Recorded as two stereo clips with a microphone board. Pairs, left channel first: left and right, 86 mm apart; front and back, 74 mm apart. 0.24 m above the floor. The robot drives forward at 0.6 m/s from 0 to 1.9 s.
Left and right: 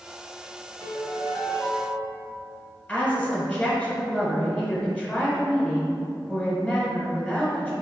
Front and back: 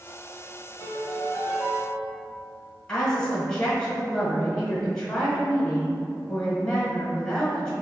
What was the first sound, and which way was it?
A piano, 55° left.